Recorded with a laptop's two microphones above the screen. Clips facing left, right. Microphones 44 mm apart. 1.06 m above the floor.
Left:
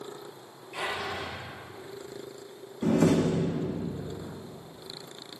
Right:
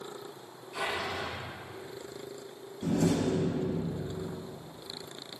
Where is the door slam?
50° left (ahead or behind), 1.3 m.